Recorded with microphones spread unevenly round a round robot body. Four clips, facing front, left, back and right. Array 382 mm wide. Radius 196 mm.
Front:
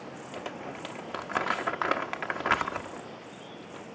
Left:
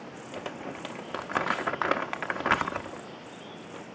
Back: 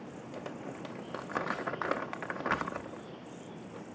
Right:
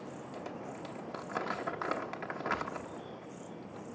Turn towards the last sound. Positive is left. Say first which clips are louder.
# left 7 dB, front 3 dB
turn(degrees=70)